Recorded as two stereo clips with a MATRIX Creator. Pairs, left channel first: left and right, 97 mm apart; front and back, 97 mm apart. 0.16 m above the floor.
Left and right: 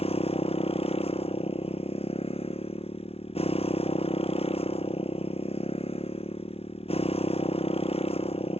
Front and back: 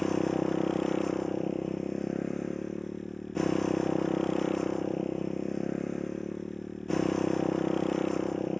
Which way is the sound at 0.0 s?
90° left.